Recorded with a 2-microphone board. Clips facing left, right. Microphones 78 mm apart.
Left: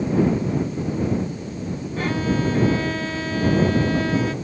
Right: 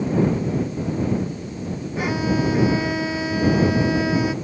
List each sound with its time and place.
2.0 s a violin: 10° right (ahead or behind)